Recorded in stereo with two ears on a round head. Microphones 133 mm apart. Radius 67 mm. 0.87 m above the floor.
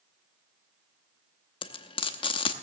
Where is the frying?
35° left (ahead or behind), 0.8 m.